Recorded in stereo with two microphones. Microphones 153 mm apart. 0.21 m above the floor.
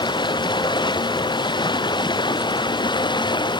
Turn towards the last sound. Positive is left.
turn(degrees=30)  # may be behind; listen again after turning